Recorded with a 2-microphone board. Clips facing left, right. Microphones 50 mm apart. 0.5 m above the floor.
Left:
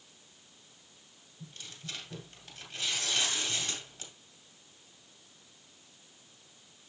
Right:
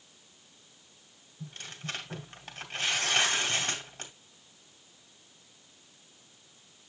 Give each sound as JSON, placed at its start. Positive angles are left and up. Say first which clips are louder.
{"t": 1.4, "sound": "tearing paper", "louder": "right 6 dB", "side_deg": -60, "distance_m": 1.8}